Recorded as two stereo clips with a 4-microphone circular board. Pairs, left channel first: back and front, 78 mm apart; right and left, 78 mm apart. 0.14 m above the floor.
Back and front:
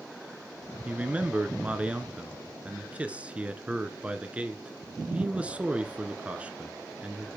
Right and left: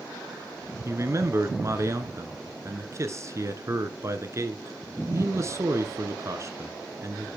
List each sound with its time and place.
0.8 s a man speaking: 65° left, 1.4 m